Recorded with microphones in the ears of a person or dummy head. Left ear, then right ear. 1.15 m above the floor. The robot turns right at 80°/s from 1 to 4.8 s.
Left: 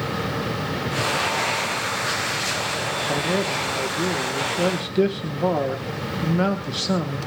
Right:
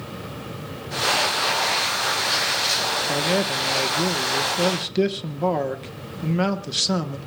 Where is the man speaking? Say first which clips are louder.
Right 1 dB; 155° right, 0.9 m; by 7.2 s 15° right, 0.9 m.